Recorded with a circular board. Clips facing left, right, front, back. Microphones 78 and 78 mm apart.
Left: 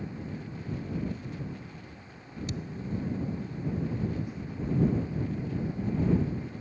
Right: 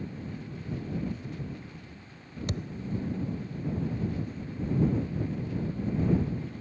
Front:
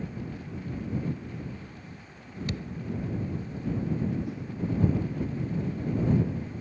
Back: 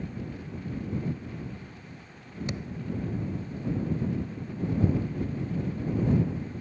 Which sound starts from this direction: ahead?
A whoosh, at 4.2 s.